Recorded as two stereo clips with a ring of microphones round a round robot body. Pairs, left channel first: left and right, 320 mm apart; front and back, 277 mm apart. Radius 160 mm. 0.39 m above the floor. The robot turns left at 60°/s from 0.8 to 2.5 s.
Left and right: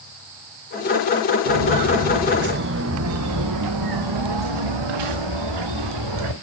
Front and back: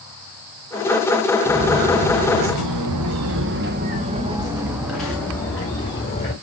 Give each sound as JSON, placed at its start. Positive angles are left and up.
{"t": 1.5, "sound": "footsteps", "azimuth_deg": -105, "distance_m": 2.5}